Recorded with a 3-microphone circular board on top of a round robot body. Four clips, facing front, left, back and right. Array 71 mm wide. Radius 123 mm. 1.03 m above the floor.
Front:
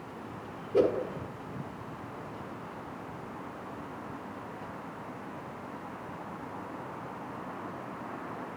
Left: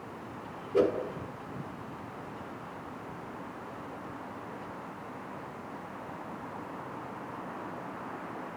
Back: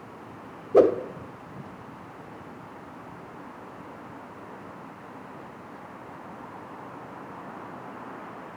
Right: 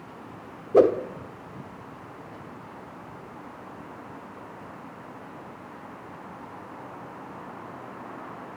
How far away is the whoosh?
About 0.9 m.